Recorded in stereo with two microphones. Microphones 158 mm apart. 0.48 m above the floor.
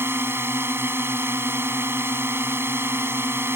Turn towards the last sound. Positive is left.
turn(degrees=-15)  # may be behind; listen again after turning